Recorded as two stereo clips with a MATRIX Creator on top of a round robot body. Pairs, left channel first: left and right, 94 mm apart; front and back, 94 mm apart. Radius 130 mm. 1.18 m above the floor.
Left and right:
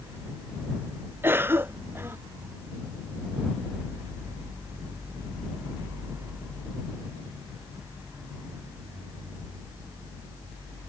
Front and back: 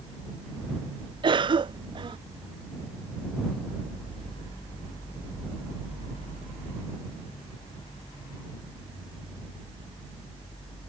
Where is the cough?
155° right.